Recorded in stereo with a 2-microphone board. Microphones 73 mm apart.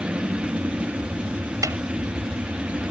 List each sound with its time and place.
0.0 s an aircraft: 20° right (ahead or behind)
1.6 s a snare drum: 55° right (ahead or behind)